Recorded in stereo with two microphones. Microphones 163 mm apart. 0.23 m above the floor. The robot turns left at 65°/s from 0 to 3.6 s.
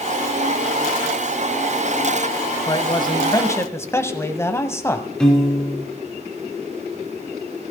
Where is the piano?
5° left (ahead or behind), 3.5 m.